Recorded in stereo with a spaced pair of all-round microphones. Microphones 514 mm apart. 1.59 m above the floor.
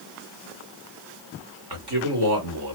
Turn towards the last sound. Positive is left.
turn(degrees=-50)  # may be behind; listen again after turning